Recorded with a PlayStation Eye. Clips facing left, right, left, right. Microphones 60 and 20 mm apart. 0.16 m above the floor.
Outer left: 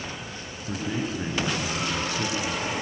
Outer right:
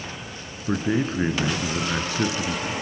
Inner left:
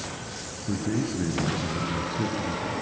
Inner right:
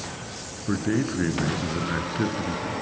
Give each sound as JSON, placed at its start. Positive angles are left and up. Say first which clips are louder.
{"t": 0.7, "sound": "a man speaking", "louder": "outer right 6 dB, inner right 3 dB", "side_deg": -45, "distance_m": 2.0}